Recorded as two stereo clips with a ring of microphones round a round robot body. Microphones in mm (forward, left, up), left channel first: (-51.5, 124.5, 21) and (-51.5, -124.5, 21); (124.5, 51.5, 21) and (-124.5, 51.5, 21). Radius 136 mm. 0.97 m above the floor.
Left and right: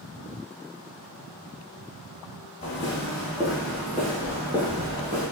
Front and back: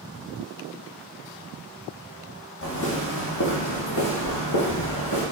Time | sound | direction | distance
2.6 | footsteps | 20° left | 1.9 m